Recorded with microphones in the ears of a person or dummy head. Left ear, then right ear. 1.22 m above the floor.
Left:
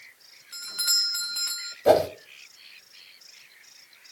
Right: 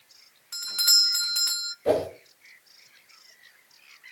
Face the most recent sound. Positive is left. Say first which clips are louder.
# left 5 dB
turn(degrees=20)  # may be behind; listen again after turning